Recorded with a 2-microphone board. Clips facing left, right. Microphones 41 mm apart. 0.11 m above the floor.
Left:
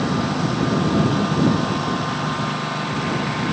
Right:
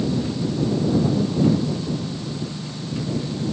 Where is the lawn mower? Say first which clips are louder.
Left 2 dB; 75° left (ahead or behind).